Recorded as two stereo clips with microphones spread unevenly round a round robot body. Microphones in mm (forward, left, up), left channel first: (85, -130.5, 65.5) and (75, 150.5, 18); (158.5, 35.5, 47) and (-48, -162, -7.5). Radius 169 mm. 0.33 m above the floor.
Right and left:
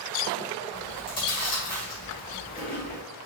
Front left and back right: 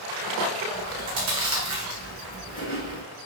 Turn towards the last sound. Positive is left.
turn(degrees=-155)